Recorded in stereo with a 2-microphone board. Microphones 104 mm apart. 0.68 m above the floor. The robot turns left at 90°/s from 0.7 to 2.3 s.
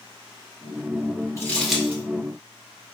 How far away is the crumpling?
About 1.7 m.